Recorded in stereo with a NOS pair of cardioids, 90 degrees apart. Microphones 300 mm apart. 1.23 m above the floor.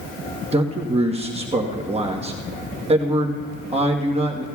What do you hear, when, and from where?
0.5 s a man speaking: 20° right, 1.3 m